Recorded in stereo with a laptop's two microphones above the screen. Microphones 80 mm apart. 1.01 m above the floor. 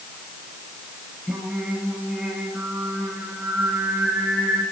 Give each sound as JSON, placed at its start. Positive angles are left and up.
{"t": 1.3, "sound": "singing", "side_deg": 0, "distance_m": 4.0}